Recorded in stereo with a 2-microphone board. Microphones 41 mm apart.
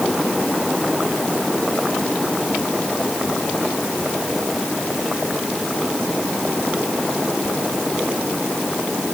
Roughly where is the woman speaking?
I don't hear a woman speaking.